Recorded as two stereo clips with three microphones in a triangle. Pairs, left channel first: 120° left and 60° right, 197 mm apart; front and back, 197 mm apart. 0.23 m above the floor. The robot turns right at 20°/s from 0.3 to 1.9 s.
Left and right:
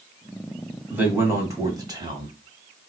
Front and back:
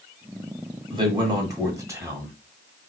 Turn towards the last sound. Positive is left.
turn(degrees=-115)